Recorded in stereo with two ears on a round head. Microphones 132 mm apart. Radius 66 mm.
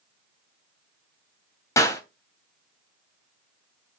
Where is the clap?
20° left (ahead or behind), 2.5 m.